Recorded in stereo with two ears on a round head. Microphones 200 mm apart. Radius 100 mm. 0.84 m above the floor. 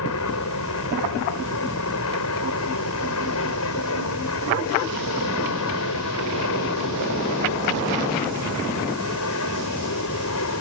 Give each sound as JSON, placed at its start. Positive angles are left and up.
{"t": 0.0, "sound": "an aircraft", "side_deg": 65}